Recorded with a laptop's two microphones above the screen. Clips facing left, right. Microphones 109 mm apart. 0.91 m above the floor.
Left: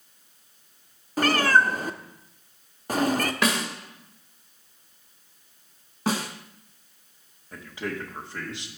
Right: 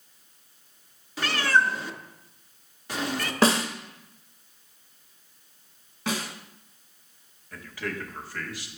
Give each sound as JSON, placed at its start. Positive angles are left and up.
{"t": 1.2, "sound": "a cat meowing", "side_deg": 45, "distance_m": 0.5}
{"t": 3.4, "sound": "a snare drum", "side_deg": -35, "distance_m": 1.0}
{"t": 6.1, "sound": "a snare drum", "side_deg": 40, "distance_m": 1.5}
{"t": 7.5, "sound": "a man speaking", "side_deg": 20, "distance_m": 1.0}